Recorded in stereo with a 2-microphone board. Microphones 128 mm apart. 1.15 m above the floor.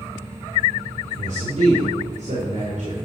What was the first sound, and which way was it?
A man speaking, 85° right.